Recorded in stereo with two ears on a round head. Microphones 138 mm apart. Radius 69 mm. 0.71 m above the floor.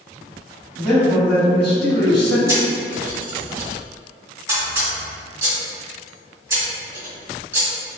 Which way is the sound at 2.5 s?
20° right (ahead or behind).